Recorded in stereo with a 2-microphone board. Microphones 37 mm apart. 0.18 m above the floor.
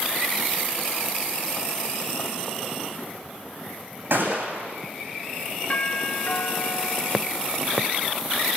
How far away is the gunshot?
About 9 m.